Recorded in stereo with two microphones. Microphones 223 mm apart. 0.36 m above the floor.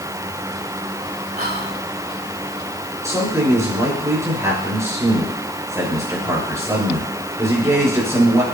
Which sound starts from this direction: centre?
A man speaking, at 3.0 s.